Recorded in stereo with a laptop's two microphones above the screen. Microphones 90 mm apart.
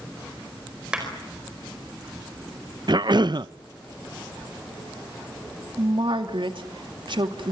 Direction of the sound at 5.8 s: 65° right (ahead or behind).